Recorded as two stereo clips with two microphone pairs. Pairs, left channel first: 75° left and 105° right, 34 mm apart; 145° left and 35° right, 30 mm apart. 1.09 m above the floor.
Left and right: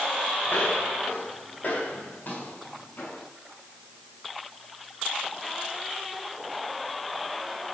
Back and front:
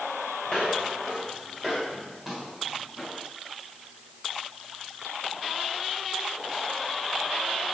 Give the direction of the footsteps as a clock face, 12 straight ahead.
9 o'clock.